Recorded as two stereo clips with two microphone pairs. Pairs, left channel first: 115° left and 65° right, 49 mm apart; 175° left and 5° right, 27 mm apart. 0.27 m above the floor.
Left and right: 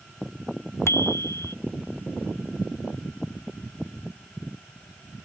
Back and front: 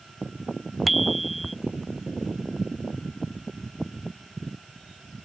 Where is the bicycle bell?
85° left.